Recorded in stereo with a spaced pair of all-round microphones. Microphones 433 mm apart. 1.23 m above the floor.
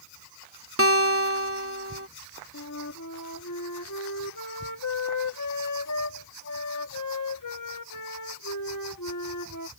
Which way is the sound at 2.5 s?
45° left (ahead or behind).